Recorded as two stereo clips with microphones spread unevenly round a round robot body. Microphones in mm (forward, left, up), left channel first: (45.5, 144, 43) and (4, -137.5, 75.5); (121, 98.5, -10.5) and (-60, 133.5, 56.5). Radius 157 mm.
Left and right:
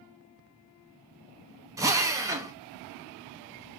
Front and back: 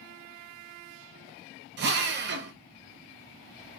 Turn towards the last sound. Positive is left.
turn(degrees=180)